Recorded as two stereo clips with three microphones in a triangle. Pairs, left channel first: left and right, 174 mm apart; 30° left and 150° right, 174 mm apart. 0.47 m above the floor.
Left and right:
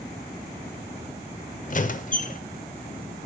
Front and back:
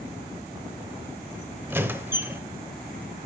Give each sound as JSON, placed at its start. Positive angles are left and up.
{"t": 1.7, "sound": "a squeak", "azimuth_deg": 135, "distance_m": 0.6}